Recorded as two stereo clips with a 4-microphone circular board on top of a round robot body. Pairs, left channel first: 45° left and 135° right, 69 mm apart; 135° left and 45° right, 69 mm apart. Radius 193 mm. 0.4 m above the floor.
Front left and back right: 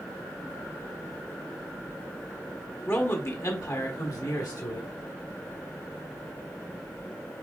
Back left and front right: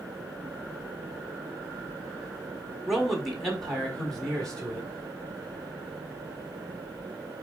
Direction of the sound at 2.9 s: 35° left.